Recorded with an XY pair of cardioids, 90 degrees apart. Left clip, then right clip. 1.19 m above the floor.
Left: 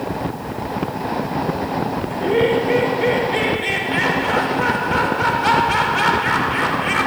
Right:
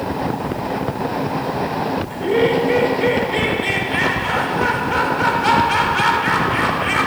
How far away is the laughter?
About 5 m.